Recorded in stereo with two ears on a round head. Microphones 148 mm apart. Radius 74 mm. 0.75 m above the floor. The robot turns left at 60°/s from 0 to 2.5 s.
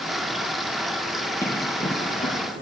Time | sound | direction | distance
1.4 | running footsteps | 15° left (ahead or behind) | 1.7 m